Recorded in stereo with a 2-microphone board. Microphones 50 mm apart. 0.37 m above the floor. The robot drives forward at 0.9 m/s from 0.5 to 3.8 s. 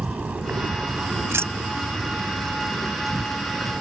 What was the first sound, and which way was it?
An insect, 30° right (ahead or behind).